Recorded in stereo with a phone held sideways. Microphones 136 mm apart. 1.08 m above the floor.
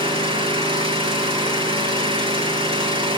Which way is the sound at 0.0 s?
40° right (ahead or behind).